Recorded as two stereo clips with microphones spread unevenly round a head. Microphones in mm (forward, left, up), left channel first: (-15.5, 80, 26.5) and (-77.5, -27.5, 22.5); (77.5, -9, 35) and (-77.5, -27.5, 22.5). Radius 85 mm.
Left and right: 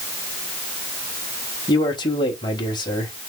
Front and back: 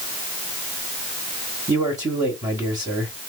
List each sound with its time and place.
1.7 s a man speaking: 115° left, 1.8 m